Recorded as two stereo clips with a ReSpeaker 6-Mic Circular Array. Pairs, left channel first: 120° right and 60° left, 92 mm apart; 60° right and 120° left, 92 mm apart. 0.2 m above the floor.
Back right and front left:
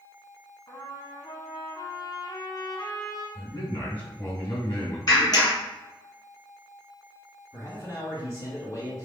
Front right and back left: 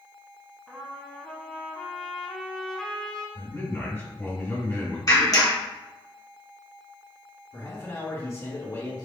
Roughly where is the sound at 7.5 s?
Right.